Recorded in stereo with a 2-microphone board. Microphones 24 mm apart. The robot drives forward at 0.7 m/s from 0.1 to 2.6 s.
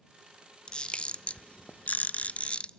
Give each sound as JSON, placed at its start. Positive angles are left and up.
{"t": 0.7, "sound": "a camera shutter", "side_deg": 35, "distance_m": 1.1}